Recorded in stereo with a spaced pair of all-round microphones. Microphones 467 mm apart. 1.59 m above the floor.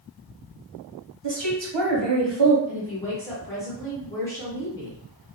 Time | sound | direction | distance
1.2 | a woman speaking | 65° right (ahead or behind) | 1.0 m
2.7 | a woman speaking | 5° left (ahead or behind) | 1.0 m